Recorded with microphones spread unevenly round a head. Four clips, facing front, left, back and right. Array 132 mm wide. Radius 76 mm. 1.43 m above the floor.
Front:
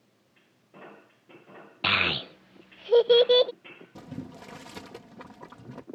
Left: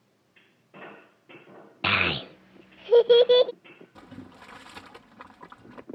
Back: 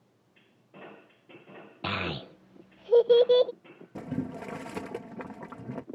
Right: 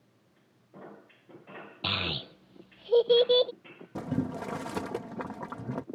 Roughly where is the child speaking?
Ahead left.